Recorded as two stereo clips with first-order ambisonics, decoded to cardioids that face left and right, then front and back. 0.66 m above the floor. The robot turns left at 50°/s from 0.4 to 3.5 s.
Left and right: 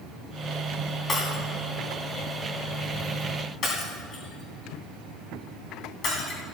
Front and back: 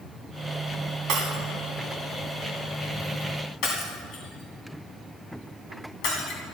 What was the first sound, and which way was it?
Breaking glass, 155° left.